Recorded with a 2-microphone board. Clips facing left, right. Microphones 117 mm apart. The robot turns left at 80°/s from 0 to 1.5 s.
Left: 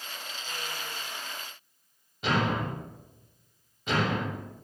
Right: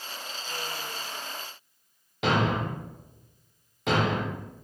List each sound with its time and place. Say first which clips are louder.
2.2 s a thud: right 2 dB; 85° right, 6 m